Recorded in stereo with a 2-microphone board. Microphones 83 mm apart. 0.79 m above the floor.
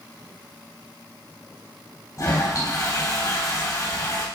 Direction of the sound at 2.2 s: 45° left (ahead or behind).